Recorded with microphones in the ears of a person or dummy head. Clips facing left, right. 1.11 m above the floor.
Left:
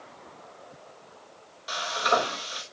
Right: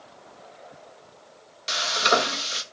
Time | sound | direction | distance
1.7 | frying | 35° right (ahead or behind) | 1.2 m